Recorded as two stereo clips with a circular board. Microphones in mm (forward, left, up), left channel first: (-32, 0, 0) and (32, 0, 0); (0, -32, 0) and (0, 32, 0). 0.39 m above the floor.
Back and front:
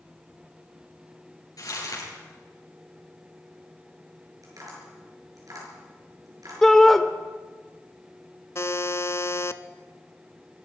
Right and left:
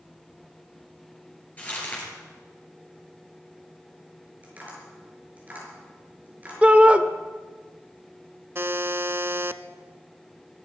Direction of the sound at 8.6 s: 140° left.